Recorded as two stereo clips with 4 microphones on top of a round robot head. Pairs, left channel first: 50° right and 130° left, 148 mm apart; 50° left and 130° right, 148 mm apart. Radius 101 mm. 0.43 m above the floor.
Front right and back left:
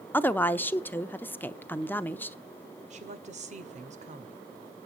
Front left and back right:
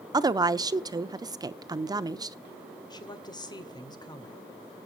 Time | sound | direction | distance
0.1 | a woman speaking | 110° right | 0.8 m
2.9 | a woman speaking | 105° left | 2 m